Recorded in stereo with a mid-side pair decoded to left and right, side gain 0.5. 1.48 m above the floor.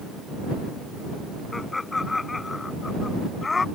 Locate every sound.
1.5 s laughter: 20° left; by 3.6 s 25° left